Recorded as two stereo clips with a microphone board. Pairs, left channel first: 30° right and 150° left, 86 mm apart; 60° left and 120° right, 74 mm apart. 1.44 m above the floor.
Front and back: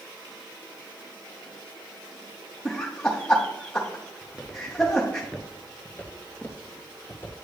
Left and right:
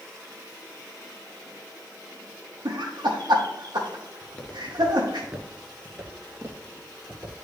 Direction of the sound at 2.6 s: 105° right.